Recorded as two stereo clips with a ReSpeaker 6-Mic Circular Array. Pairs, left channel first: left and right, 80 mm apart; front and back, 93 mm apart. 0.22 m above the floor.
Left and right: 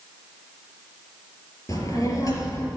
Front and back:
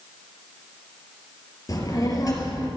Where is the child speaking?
50° left, 3 m.